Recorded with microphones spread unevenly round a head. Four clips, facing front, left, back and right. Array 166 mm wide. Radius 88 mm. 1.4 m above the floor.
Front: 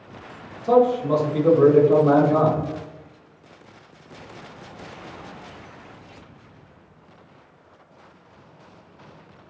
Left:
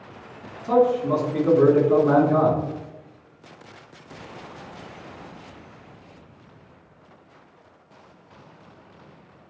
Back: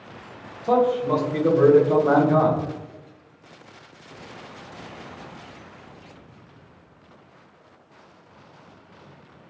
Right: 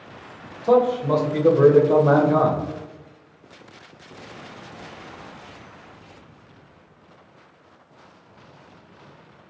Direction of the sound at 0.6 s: 105° right.